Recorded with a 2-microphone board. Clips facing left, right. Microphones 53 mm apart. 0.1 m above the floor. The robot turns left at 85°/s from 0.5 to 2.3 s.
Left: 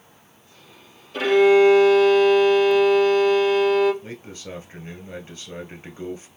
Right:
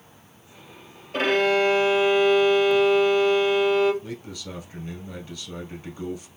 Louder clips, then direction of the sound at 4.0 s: Right 1 dB; 40° left (ahead or behind).